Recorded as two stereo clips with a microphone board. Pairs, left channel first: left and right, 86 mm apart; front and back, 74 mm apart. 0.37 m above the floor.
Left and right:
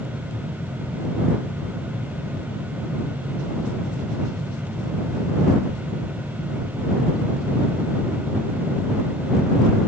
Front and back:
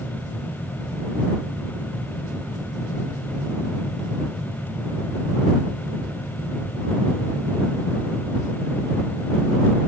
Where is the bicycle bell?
No bicycle bell in this recording.